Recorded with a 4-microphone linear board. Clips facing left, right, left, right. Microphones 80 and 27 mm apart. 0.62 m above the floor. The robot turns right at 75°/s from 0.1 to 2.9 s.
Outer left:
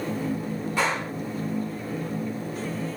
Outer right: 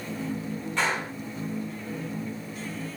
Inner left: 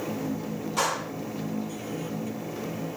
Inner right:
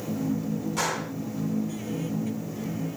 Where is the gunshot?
5° left (ahead or behind), 5.5 m; by 1.1 s 20° right (ahead or behind), 5.5 m.